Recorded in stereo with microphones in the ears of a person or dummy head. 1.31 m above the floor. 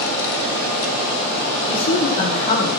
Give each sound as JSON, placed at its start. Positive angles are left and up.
{"t": 1.6, "sound": "a man speaking", "side_deg": 65, "distance_m": 3.5}